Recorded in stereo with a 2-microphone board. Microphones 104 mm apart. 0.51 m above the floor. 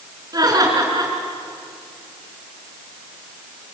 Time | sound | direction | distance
0.3 | laughter | 40° right (ahead or behind) | 5.5 m